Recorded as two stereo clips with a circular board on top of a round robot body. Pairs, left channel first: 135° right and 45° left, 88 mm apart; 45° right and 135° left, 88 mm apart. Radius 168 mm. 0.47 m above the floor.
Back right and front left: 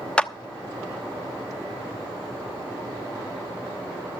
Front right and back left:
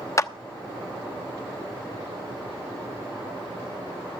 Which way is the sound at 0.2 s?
65° right.